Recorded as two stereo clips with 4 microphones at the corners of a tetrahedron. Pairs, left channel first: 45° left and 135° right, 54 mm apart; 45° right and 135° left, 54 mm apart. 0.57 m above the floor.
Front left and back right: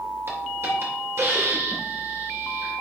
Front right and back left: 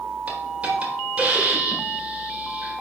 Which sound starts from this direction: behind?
A hiss, at 0.3 s.